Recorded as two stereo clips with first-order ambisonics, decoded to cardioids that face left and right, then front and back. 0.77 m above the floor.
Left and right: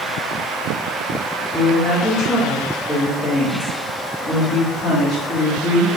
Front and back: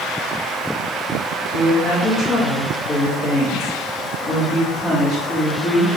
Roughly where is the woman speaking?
Ahead left.